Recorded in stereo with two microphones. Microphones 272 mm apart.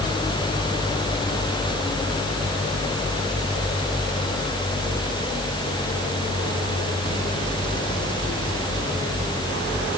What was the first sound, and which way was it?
Only background noise.